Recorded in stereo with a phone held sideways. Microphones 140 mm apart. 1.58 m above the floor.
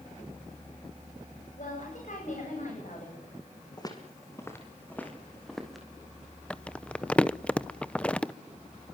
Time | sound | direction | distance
1.6 | a woman speaking | 60° left (ahead or behind) | 10 m
3.8 | footsteps | 30° left (ahead or behind) | 4 m
6.5 | crumpling | 10° left (ahead or behind) | 0.8 m